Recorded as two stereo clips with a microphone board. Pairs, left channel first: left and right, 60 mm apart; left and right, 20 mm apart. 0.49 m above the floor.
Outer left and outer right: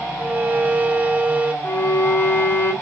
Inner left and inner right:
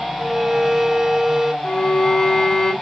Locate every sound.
0.2 s a violin: 25° right (ahead or behind), 0.6 m
1.6 s a violin: 40° left (ahead or behind), 2.5 m